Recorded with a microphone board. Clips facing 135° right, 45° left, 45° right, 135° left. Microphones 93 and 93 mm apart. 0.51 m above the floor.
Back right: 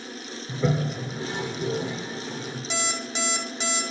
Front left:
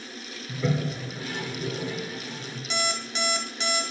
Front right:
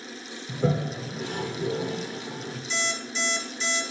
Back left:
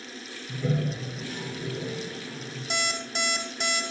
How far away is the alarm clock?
About 1.1 m.